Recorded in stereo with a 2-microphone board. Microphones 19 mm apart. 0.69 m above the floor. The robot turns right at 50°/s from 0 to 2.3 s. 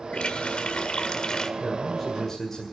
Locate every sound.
0.1 s a running tap: 70° left, 1.6 m; by 1.5 s 140° left, 1.6 m
1.6 s a man speaking: 15° right, 2 m; by 2.6 s 20° left, 2 m